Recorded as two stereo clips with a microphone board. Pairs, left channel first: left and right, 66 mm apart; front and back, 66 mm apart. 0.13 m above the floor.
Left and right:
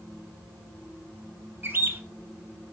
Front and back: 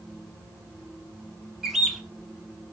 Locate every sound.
1.6 s a bird: 100° right, 1.0 m